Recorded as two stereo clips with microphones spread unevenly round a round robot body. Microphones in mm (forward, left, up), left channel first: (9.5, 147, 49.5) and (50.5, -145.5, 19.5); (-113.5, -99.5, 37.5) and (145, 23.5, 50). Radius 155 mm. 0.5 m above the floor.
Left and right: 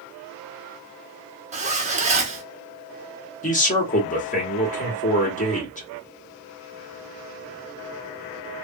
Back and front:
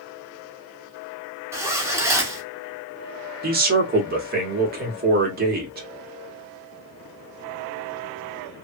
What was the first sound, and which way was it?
A zipper, 50° right.